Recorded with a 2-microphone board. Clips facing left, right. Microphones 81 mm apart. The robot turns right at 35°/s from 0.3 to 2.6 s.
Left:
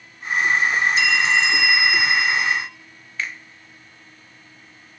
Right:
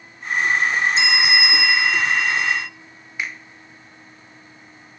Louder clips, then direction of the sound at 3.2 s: Even; 15° right (ahead or behind).